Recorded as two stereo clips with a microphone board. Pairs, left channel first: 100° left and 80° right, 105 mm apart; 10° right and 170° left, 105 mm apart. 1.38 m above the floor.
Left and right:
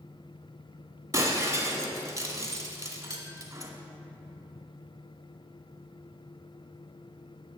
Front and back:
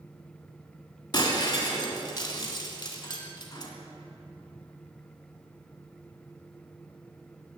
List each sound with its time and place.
1.1 s breaking glass: 35° right, 1.7 m